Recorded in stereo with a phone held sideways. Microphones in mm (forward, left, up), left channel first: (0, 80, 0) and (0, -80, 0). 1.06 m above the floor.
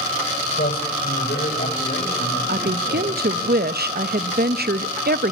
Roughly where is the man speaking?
Left.